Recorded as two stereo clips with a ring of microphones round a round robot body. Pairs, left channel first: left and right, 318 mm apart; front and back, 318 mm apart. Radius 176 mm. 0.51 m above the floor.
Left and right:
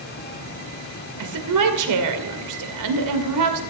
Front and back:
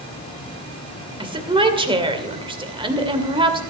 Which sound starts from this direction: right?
A woman speaking, at 1.2 s.